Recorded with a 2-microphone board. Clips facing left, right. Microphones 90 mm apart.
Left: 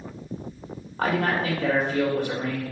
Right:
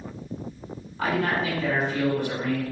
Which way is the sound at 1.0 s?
50° left (ahead or behind).